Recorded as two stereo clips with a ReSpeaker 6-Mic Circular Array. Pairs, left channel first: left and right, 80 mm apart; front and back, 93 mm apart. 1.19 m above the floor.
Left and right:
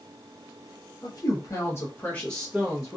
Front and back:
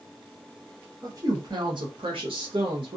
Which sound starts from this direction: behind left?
A woman speaking, at 1.0 s.